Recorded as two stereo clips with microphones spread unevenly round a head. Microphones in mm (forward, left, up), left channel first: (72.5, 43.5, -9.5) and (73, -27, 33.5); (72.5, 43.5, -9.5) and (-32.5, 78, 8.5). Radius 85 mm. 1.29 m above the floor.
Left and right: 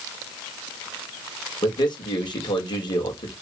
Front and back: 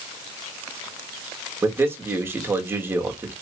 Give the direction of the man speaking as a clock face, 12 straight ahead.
9 o'clock.